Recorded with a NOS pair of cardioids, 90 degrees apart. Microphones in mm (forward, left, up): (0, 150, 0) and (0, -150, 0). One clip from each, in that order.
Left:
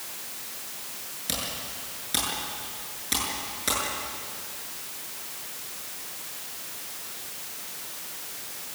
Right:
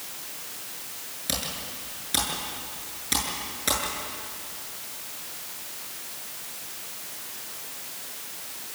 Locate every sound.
1.3 s typing on a keyboard: 10° right, 8 m